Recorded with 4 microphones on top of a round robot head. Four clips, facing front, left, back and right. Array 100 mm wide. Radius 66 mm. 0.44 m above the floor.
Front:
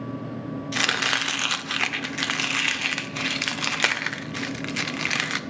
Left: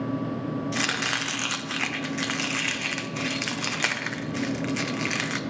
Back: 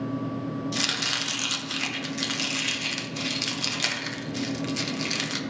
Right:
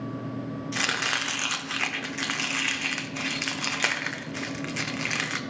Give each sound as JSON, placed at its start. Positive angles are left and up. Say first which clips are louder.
{"t": 0.7, "sound": "chopping", "louder": "left 1 dB, front 5 dB", "azimuth_deg": 0, "distance_m": 0.6}